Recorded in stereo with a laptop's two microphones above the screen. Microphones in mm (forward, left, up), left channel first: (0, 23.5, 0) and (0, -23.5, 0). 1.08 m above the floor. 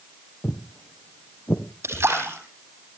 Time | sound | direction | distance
0.4 | footsteps | 45° left (ahead or behind) | 1.8 m
1.8 | a splash | 65° right (ahead or behind) | 7.5 m